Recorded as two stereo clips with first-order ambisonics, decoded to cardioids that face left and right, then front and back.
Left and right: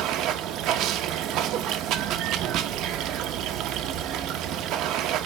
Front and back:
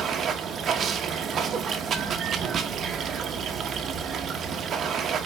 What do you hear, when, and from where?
0.0 s running water: 125° right, 0.8 m